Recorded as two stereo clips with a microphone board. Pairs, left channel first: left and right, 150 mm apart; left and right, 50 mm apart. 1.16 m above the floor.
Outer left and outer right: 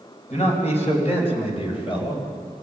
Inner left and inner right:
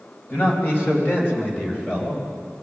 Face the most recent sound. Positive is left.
turn(degrees=35)  # may be behind; listen again after turning